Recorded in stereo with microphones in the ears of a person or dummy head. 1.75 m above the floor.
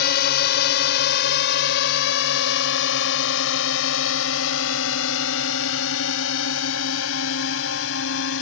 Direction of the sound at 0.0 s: 60° left (ahead or behind).